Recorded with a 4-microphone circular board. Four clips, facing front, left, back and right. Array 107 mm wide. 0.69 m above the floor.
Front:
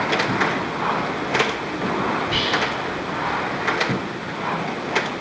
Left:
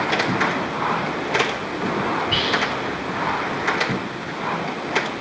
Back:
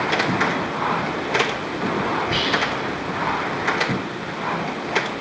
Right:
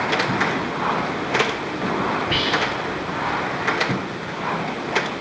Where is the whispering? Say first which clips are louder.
Even, even; 115° right, 0.8 m.